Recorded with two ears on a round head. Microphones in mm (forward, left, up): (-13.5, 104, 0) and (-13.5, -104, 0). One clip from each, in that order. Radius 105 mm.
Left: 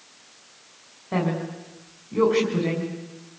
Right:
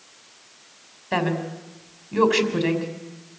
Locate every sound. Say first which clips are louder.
1.1 s a woman speaking: right 3 dB; 85° right, 5.5 m